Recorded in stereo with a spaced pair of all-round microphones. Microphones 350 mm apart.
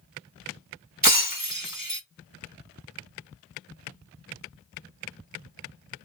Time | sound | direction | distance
1.0 | breaking glass | 65° right (ahead or behind) | 1.9 m